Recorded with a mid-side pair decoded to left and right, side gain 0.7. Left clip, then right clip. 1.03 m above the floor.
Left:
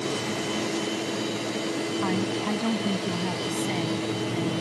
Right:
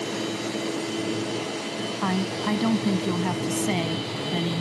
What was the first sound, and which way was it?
A woman speaking, 20° right.